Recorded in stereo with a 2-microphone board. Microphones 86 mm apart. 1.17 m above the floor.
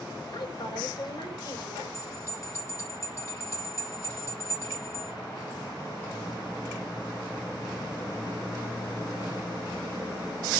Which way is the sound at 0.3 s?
55° left (ahead or behind).